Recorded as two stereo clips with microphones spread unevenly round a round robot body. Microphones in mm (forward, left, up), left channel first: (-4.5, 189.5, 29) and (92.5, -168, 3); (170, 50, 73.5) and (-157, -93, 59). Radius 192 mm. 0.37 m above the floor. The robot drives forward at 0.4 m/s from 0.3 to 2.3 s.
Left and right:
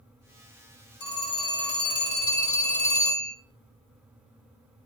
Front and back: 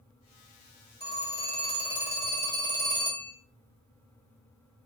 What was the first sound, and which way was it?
A phone ringing, 100° left.